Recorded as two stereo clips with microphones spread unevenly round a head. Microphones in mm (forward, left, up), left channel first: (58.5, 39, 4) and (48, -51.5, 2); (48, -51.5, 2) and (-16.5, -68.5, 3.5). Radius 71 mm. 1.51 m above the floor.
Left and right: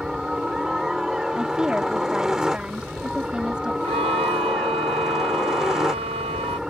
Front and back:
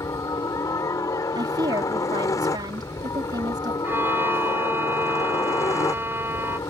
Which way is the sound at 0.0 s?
15° right.